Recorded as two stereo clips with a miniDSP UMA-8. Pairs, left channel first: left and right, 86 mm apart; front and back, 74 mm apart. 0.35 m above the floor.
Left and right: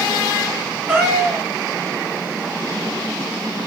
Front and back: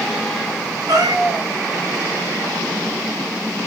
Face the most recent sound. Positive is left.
turn(degrees=-175)